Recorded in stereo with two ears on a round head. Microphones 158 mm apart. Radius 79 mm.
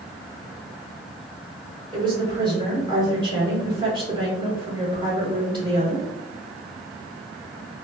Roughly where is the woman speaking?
Right.